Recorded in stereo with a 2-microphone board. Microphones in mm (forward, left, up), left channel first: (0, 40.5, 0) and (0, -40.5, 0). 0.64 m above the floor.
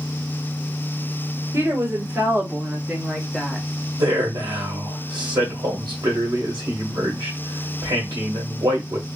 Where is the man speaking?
65° right (ahead or behind), 1.2 m.